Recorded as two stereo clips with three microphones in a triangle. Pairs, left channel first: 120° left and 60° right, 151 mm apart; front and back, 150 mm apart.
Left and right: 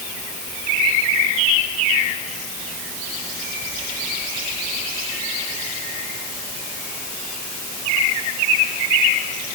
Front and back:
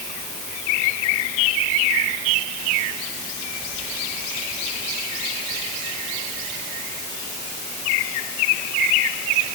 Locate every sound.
Only background noise.